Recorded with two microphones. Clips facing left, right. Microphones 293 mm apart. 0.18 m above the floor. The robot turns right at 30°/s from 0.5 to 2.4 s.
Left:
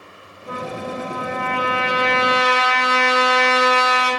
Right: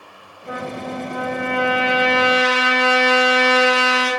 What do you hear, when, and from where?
0.5 s a trumpet: 155° right, 1.6 m; by 4.1 s 100° right, 1.6 m